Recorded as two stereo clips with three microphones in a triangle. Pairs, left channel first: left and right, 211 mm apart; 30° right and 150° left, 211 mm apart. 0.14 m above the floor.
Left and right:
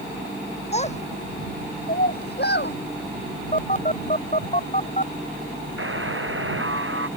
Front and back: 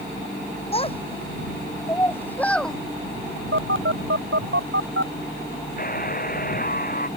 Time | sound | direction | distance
0.7 | a child speaking | 30° left | ?
3.5 | a phone buzzing | 140° left | ?
5.8 | a buzzer | 75° right | ?